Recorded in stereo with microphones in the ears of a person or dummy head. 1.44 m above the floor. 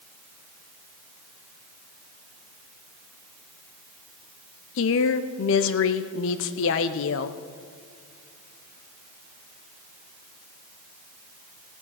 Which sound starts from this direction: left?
A woman speaking, at 4.8 s.